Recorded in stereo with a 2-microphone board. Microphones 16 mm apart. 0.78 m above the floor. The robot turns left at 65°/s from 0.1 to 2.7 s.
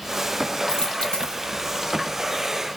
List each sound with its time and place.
0.7 s a dropped coin: 130° left, 8 m; by 1.4 s 85° left, 8 m